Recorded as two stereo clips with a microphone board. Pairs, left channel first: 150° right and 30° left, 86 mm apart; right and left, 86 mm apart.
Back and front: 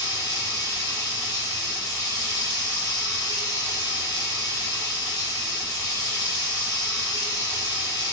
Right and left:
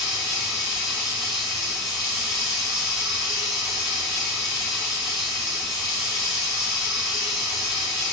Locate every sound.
0.0 s running water: straight behind, 1.4 m